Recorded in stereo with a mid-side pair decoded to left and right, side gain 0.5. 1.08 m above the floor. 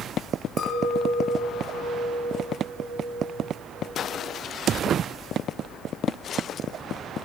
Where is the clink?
40° left, 6 m.